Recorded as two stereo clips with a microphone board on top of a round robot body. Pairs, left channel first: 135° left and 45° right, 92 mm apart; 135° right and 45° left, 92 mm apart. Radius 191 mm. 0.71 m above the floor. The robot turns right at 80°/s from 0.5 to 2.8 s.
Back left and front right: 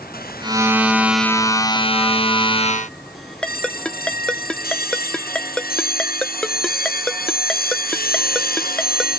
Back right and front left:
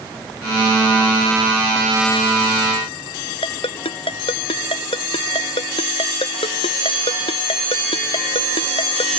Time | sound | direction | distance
3.4 | a ringtone | 145° right | ?